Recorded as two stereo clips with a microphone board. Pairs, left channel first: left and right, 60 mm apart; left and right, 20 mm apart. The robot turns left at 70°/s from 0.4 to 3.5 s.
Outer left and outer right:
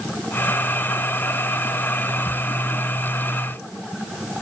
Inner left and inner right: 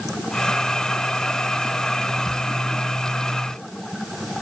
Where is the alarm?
No alarm in this recording.